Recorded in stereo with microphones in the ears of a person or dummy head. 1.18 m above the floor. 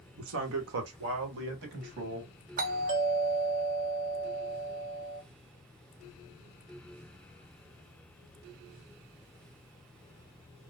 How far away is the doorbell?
About 0.9 m.